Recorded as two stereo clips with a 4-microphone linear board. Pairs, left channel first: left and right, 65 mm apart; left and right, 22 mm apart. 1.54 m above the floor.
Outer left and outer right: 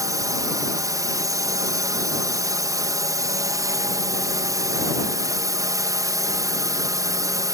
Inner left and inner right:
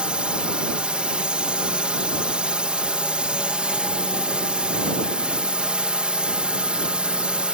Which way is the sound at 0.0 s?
60° right (ahead or behind).